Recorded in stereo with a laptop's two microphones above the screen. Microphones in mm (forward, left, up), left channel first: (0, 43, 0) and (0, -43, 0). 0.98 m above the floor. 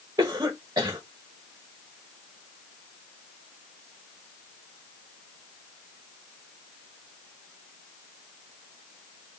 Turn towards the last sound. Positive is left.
turn(degrees=-50)  # may be behind; listen again after turning